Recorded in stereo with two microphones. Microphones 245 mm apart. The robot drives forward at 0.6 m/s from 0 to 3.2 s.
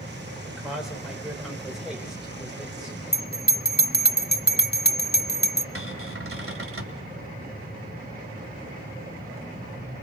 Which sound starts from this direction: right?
A cupboard door, at 5.8 s.